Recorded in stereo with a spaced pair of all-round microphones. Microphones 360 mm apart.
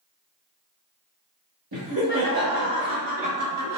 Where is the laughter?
80° right, 1.6 m; by 3.8 s 45° right (ahead or behind), 0.8 m.